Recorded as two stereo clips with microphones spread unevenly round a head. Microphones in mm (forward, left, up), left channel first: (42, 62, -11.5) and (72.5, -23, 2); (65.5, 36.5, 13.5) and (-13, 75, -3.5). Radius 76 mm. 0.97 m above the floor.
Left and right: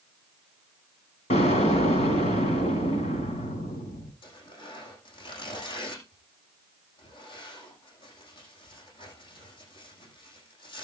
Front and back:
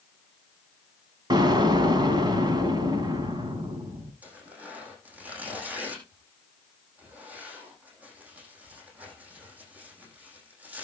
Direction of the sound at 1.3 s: 115° left.